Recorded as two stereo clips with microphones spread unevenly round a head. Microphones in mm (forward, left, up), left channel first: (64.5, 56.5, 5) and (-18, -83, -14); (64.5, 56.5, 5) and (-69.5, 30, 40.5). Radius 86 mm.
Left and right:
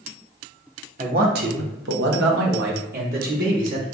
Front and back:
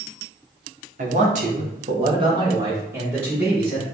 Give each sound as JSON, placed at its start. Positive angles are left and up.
{"t": 1.0, "sound": "a man speaking", "azimuth_deg": -165, "distance_m": 0.9}